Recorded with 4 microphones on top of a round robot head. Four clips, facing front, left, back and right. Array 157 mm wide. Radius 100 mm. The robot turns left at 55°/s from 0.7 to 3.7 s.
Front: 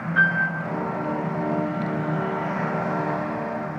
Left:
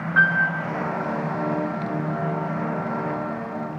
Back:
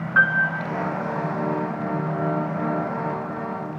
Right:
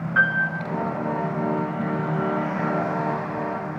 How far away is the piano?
About 1.5 m.